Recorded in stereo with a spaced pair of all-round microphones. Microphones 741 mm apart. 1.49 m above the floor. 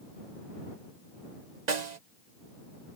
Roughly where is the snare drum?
Right.